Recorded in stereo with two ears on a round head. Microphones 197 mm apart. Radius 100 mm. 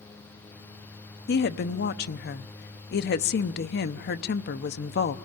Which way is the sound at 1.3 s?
50° left (ahead or behind).